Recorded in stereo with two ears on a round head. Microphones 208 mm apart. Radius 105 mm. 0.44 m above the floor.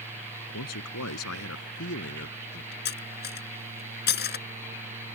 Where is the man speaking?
75° left (ahead or behind); by 2.8 s 45° left (ahead or behind).